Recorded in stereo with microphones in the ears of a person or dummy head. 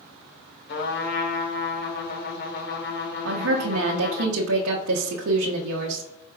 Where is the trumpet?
60° left (ahead or behind), 1.5 m.